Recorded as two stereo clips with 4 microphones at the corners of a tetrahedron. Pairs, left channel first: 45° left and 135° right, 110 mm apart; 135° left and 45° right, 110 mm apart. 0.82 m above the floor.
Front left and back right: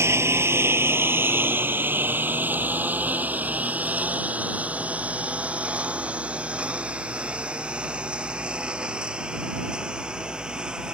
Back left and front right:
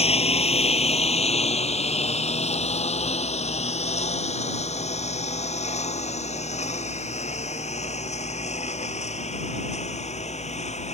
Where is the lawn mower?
160° left; by 10.9 s 140° left.